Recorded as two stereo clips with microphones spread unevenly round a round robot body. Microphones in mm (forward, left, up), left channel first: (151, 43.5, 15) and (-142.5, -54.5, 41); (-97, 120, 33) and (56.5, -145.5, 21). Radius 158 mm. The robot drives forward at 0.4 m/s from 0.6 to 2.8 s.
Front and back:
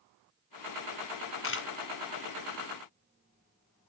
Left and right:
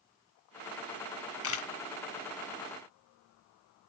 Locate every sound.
1.4 s a camera shutter: 70° left, 1.3 m; by 1.7 s 75° left, 1.3 m